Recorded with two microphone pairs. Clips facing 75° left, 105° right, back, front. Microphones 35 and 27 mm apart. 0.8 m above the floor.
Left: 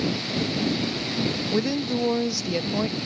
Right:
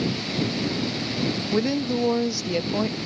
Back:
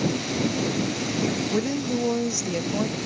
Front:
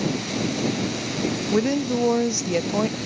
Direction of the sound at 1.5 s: 25° right.